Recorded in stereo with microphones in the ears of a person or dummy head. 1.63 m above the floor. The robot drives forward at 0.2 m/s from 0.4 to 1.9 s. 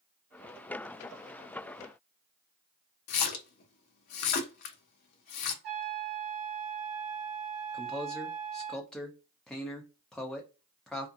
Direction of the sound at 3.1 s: 55° left (ahead or behind).